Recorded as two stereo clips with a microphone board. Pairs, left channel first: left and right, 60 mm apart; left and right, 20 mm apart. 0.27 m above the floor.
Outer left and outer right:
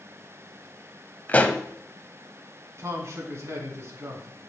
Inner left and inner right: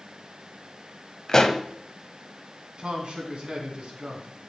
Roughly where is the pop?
Left.